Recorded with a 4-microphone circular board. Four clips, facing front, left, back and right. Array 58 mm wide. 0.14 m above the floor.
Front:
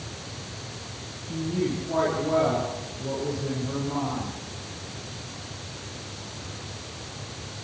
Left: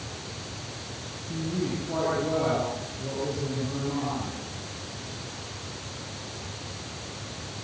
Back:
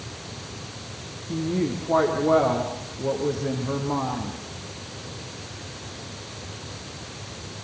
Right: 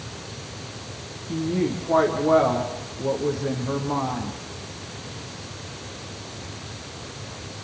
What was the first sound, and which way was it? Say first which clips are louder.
A woman speaking: right 6 dB, back 2 dB; 140° right.